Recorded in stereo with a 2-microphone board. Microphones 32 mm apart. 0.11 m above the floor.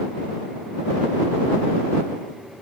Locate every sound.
Only background noise.